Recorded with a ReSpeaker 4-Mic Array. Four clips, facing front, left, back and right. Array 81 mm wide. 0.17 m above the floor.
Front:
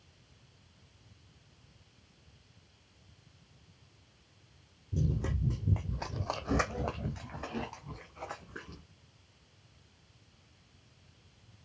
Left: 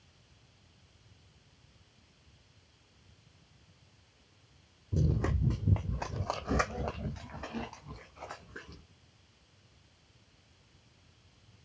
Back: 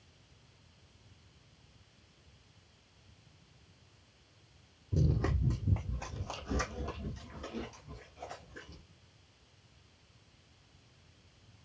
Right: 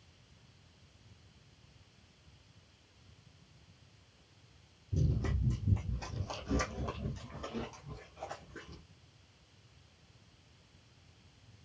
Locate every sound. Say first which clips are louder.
4.9 s running footsteps: left 4 dB, back 2 dB; 130° left, 0.6 m; by 8.8 s 15° left, 1.7 m